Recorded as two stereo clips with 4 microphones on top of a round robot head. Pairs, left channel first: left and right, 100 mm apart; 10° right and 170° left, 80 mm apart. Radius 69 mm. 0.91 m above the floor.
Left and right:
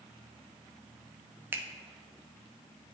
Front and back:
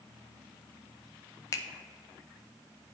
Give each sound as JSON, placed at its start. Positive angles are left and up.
{"t": 1.5, "sound": "a finger snap", "azimuth_deg": -30, "distance_m": 0.6}